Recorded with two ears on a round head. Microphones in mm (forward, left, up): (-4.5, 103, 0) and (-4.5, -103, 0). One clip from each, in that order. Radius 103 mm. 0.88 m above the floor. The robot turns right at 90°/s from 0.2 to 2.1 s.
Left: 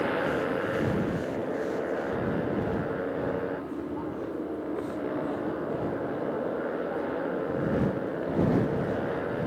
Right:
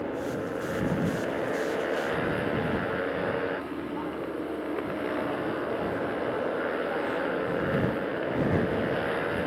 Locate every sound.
0.0 s a motorcycle: 125° left; by 9.5 s 60° right